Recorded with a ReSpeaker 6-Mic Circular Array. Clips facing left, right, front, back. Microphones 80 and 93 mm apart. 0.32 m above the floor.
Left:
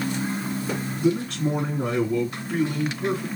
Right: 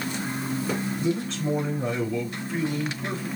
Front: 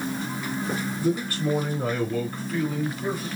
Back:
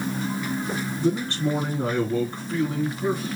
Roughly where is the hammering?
No hammering in this recording.